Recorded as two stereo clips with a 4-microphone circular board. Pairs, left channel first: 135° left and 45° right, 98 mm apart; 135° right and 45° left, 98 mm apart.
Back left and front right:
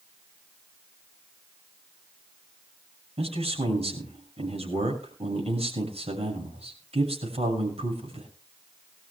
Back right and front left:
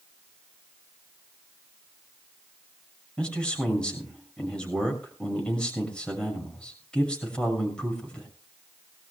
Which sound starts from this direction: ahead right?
A man speaking, at 3.2 s.